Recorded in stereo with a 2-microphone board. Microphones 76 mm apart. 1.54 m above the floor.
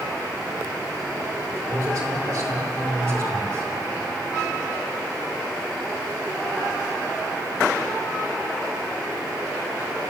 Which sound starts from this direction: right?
A man speaking, at 1.7 s.